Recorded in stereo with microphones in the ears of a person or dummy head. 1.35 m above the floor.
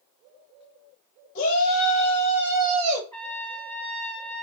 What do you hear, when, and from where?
1.4 s a shout: 45° left (ahead or behind), 1.0 m; by 3.0 s 40° right (ahead or behind), 0.8 m
3.1 s a trumpet: 10° left (ahead or behind), 1.3 m